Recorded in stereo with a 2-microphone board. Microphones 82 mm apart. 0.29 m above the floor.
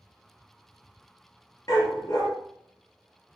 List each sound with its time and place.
1.7 s a dog barking: 45° left (ahead or behind), 3 m